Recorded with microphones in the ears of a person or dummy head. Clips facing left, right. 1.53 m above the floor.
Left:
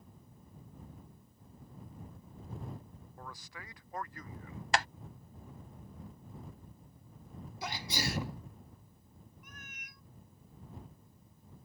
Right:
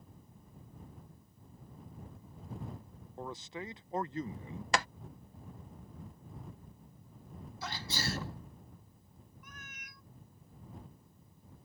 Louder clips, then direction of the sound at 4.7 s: Even; 70° right (ahead or behind).